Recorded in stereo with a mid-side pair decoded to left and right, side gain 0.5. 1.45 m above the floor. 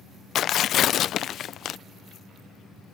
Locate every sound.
0.3 s tearing paper: 60° left